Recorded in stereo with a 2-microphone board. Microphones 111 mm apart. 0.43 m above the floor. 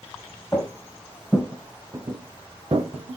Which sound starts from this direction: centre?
Footsteps, at 0.5 s.